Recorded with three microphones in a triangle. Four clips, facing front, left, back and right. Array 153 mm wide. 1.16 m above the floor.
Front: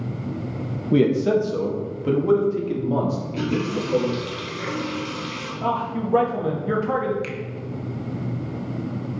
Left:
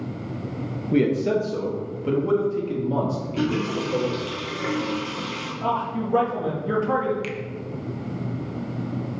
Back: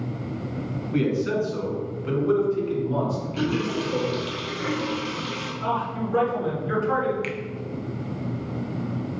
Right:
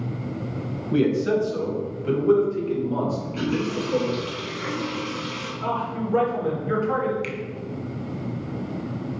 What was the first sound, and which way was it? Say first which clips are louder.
A man speaking: even, front 6 dB; 15° left.